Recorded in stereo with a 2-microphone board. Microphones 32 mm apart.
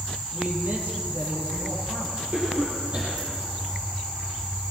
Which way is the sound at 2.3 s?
40° right (ahead or behind).